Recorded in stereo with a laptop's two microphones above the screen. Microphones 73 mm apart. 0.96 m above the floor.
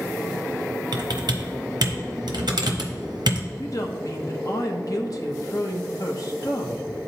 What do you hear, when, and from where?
0.9 s typing on a keyboard: 80° right, 0.7 m
3.6 s a woman speaking: 55° left (ahead or behind), 0.8 m